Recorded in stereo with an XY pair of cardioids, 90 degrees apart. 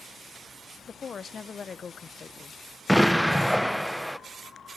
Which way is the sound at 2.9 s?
5° right.